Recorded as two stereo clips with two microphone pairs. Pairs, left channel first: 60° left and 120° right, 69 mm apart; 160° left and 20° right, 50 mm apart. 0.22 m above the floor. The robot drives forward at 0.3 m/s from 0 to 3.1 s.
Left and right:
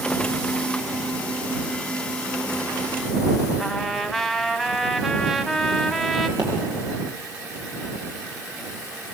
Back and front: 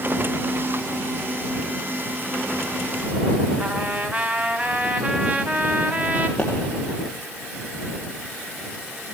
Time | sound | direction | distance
3.6 | a trumpet | 30° right | 1.7 m
6.4 | a pop | 130° right | 9.5 m